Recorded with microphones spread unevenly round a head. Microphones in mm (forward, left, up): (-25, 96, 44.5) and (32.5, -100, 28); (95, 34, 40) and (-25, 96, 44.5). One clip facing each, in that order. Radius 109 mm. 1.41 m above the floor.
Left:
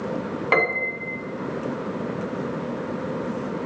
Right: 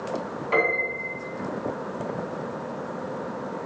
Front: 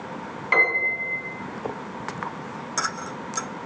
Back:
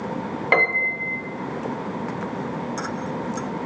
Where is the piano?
125° left, 1.1 m.